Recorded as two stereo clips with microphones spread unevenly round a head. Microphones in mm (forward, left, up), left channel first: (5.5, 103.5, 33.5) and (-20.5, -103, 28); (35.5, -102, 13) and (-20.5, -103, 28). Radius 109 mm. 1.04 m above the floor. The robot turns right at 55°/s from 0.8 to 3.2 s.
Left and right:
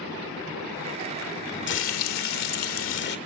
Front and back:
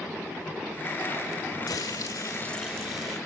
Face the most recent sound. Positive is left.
turn(degrees=130)